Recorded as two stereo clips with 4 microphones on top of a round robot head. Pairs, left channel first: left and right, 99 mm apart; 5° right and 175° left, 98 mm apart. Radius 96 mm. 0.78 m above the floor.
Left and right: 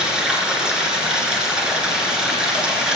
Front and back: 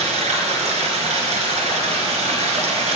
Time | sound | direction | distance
0.0 | running water | 170° right | 3 m